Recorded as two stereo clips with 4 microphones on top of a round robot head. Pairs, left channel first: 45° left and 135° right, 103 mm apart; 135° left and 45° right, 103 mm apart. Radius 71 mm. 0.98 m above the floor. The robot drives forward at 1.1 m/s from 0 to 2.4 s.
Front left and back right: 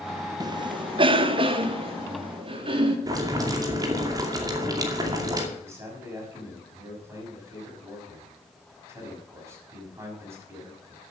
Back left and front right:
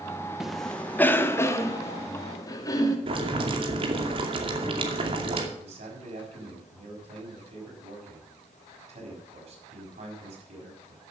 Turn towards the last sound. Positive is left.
turn(degrees=-70)